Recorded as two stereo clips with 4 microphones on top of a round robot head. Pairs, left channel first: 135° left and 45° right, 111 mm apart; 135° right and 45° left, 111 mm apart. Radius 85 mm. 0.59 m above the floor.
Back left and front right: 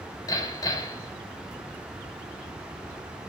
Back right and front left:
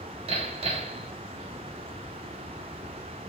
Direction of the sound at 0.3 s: 80° left.